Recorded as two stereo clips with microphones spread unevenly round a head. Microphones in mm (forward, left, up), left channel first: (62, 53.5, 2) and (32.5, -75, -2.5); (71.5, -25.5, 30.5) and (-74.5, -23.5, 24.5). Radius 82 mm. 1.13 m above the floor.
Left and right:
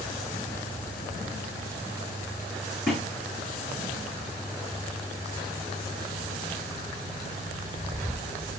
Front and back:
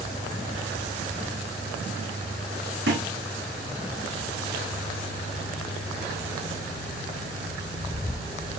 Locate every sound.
2.9 s a thud: 165° left, 5 m